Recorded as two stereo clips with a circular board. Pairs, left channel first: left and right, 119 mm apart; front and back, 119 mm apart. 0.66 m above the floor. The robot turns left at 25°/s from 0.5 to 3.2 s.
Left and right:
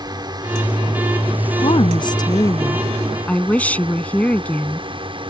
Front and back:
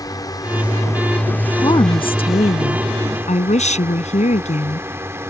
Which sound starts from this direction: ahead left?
A woman speaking, at 1.6 s.